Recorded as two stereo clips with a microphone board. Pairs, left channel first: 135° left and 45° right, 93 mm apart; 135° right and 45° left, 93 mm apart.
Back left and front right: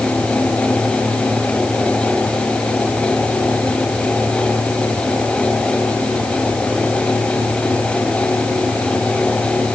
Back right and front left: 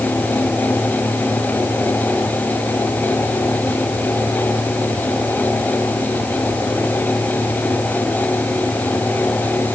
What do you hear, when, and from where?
Only background noise.